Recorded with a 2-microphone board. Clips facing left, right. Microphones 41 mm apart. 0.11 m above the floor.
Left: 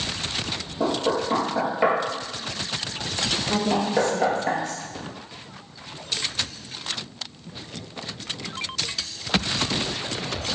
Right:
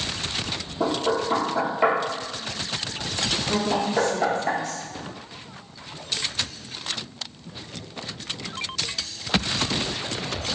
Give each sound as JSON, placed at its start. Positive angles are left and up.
{"t": 0.8, "sound": "knocking", "side_deg": 10, "distance_m": 1.6}
{"t": 3.5, "sound": "a woman speaking", "side_deg": 10, "distance_m": 1.3}